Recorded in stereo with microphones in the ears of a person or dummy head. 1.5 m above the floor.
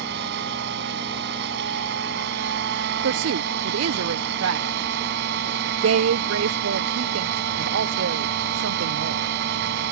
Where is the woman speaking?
70° right (ahead or behind).